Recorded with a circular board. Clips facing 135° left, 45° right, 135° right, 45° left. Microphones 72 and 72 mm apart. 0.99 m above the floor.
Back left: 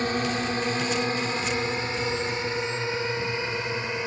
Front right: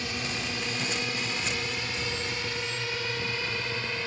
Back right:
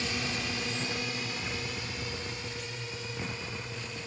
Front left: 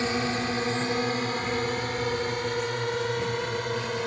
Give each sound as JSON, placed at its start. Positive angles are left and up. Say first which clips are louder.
{"t": 0.0, "sound": "a drone", "louder": "back left 8 dB, front left 8 dB", "azimuth_deg": 90}